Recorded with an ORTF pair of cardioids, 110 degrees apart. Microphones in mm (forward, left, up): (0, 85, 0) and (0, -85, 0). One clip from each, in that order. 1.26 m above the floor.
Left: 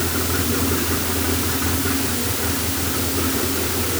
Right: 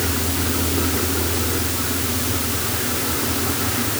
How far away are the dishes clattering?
No dishes clattering in this recording.